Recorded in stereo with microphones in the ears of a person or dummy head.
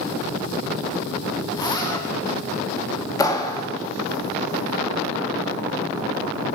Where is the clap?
25° left (ahead or behind), 2.5 m.